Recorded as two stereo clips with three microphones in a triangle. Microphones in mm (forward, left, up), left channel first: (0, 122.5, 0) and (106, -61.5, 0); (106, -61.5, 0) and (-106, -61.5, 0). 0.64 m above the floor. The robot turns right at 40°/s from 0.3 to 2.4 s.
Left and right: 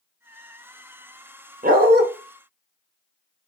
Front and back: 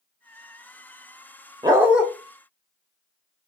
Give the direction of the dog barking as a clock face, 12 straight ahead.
4 o'clock.